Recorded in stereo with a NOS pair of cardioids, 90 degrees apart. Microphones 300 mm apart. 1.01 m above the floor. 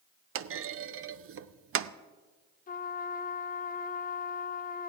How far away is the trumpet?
About 0.7 m.